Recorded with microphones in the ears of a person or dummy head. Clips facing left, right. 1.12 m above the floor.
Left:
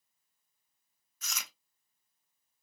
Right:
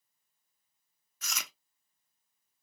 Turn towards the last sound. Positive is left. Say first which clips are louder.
# right 3 dB
turn(degrees=-45)  # may be behind; listen again after turning